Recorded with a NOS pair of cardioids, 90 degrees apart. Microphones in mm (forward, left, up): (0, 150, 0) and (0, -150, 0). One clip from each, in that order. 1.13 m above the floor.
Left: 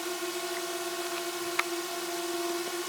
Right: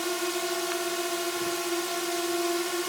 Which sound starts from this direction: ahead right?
A drone, at 0.0 s.